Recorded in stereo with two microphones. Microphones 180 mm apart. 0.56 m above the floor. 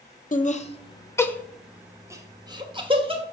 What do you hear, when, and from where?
0.3 s laughter: 45° left (ahead or behind), 0.9 m; by 3.2 s 30° right (ahead or behind), 1.6 m